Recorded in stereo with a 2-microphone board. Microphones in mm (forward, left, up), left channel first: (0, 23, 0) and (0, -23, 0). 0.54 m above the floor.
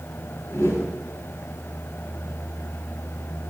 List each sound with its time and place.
0.5 s a whoosh: 85° left, 3 m